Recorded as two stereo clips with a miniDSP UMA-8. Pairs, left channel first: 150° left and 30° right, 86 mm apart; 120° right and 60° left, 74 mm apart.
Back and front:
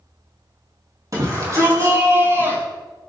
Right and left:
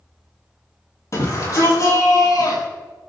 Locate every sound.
1.1 s a shout: 75° right, 4.5 m; by 2.6 s 90° right, 6 m